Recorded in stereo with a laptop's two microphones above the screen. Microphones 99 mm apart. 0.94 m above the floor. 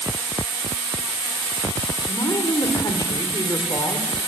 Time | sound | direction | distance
2.1 | a woman speaking | 40° left (ahead or behind) | 2.5 m